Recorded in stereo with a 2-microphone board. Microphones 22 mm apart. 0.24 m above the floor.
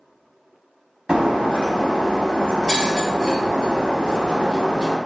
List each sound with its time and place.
1.1 s breaking glass: 45° right (ahead or behind), 0.9 m